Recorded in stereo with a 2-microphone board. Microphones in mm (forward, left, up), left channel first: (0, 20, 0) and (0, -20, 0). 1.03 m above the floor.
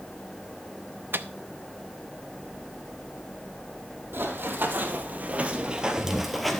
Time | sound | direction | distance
1.1 | a microwave | 55° right (ahead or behind) | 0.6 m
4.1 | running footsteps | 55° right (ahead or behind) | 2 m